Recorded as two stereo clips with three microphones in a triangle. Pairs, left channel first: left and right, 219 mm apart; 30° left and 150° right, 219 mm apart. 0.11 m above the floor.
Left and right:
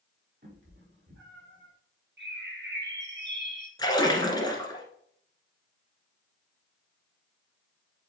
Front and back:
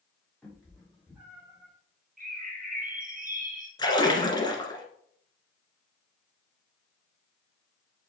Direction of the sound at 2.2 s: 105° right.